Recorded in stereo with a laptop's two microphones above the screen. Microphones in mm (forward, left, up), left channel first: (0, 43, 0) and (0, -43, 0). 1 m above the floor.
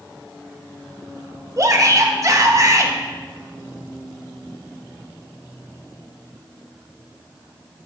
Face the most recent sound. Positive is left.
turn(degrees=-40)  # may be behind; listen again after turning